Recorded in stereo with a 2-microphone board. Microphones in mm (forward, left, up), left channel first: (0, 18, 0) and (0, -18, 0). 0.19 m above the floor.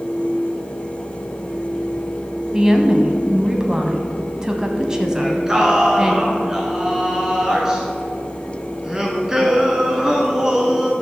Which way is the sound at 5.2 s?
15° right (ahead or behind).